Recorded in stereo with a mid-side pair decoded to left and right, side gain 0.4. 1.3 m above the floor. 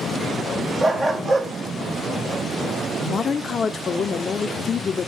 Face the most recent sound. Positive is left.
turn(degrees=45)